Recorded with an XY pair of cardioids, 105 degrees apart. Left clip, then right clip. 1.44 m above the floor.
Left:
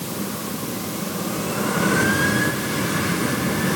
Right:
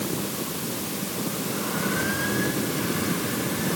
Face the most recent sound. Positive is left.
No sound to turn to.